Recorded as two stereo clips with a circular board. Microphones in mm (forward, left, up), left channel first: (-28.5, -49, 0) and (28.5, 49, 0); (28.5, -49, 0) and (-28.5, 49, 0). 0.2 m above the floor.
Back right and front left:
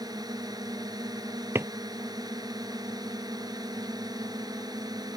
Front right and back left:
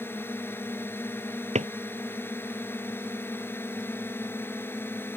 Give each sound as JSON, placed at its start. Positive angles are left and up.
{"t": 0.0, "sound": "a drone", "azimuth_deg": 10}
{"t": 1.6, "sound": "a drawer", "azimuth_deg": 125}